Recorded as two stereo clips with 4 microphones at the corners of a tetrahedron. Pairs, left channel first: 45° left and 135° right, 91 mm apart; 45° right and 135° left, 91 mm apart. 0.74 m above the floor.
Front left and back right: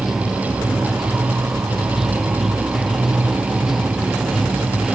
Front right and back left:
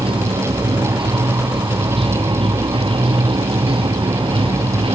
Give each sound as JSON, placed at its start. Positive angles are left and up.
{"t": 0.0, "sound": "running water", "azimuth_deg": 140}